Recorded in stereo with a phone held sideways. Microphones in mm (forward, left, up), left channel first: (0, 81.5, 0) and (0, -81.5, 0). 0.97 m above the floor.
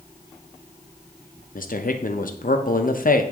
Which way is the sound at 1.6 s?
60° left (ahead or behind).